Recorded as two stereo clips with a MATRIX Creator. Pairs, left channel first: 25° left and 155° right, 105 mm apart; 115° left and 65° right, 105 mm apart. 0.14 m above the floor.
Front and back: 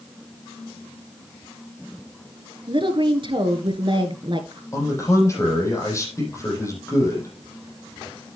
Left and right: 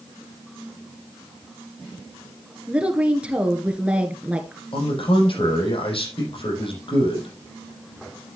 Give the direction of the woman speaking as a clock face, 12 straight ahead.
5 o'clock.